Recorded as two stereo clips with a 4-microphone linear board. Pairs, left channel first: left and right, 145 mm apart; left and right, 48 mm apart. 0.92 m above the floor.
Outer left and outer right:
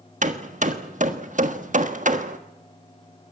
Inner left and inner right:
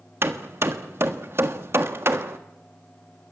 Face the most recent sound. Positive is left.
turn(degrees=-55)  # may be behind; listen again after turning